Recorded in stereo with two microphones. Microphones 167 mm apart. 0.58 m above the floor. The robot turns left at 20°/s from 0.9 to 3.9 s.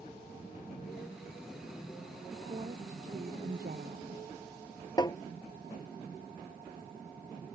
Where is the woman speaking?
35° right; by 4.2 s 65° right.